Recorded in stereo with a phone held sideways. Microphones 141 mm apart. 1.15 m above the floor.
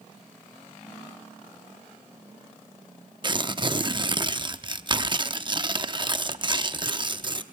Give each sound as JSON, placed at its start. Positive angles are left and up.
{"t": 3.2, "sound": "tearing paper", "side_deg": -35, "distance_m": 0.7}